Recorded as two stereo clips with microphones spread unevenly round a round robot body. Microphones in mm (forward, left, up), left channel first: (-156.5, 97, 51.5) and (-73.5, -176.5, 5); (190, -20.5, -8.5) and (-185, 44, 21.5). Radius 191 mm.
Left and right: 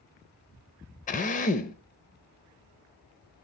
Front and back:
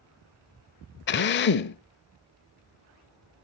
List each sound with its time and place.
1.1 s a drill: 40° left, 0.5 m